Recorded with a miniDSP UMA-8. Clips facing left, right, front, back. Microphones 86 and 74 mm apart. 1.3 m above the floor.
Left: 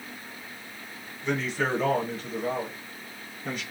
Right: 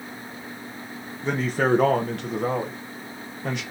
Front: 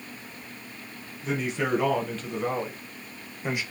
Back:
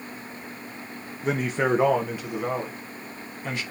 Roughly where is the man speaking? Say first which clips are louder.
Right 5 dB, back 4 dB; behind right.